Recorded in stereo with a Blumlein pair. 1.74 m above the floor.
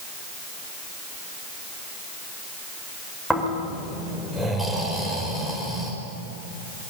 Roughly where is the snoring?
Ahead.